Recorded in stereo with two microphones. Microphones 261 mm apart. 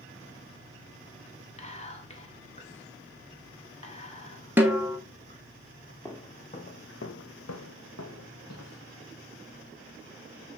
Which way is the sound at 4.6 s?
5° right (ahead or behind).